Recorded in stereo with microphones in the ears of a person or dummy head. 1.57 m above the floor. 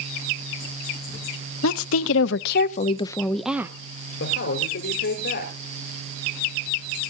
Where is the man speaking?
60° left (ahead or behind), 5 m.